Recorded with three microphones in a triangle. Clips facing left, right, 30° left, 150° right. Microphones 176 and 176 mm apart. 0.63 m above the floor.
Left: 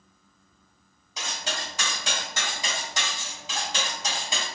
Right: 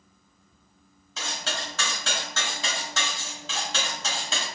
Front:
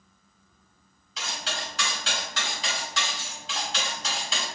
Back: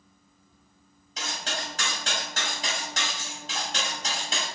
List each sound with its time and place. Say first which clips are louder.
1.2 s cutlery clinking: right 1 dB, back 1 dB; 165° left, 1.8 m